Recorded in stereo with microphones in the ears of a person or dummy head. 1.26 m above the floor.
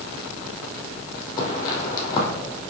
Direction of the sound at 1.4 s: 20° left (ahead or behind).